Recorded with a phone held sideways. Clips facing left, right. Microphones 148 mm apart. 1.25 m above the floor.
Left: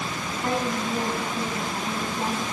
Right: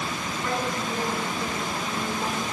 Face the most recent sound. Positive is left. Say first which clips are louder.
# left 3 dB
turn(degrees=30)  # may be behind; listen again after turning